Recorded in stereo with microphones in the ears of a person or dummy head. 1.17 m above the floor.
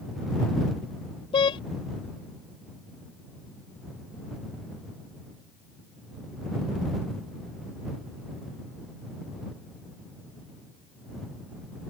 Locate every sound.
1.3 s a car horn: 30° left (ahead or behind)